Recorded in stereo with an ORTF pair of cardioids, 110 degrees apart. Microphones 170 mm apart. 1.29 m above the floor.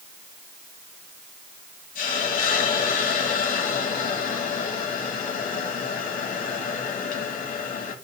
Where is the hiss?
60° left, 3 m.